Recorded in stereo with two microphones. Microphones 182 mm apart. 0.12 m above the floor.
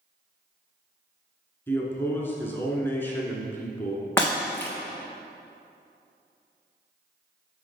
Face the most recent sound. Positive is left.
turn(degrees=10)  # may be behind; listen again after turning